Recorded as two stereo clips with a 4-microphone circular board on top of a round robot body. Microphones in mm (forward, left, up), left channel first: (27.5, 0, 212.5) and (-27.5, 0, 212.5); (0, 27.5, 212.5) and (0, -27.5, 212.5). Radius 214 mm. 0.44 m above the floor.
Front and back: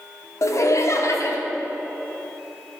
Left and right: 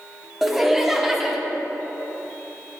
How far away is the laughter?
About 1.1 m.